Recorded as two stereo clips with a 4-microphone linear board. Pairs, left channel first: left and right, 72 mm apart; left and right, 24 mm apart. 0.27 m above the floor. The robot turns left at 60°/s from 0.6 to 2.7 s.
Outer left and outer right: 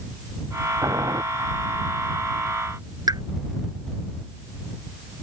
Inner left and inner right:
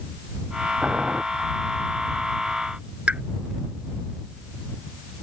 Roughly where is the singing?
I don't hear singing.